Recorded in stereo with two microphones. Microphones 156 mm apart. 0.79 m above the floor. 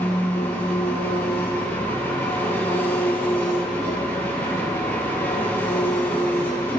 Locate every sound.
0.0 s an engine running: 15° left (ahead or behind), 3 m